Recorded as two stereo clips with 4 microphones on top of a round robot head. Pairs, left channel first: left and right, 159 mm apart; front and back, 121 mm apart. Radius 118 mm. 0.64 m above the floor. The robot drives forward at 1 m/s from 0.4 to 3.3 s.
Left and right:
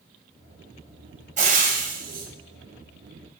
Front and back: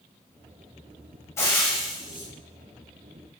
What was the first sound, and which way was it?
Frying, 65° right.